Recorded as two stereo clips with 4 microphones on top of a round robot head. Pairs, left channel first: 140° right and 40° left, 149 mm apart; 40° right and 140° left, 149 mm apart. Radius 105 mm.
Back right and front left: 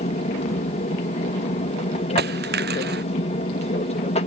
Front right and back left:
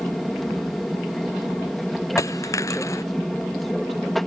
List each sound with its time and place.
0.0 s an aircraft: 130° right
2.2 s a dropped coin: 30° left